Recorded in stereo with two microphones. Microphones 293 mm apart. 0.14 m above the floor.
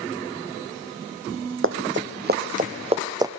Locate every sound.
1.6 s running footsteps: 45° right (ahead or behind), 2 m; by 3.3 s 10° right (ahead or behind), 1.5 m